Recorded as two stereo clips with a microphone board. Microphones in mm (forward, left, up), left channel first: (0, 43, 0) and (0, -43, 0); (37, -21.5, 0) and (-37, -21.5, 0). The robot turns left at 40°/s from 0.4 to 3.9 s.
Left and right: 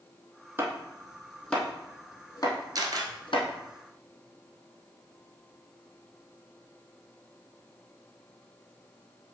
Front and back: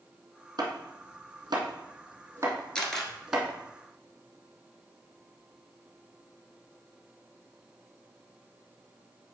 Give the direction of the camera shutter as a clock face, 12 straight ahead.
2 o'clock.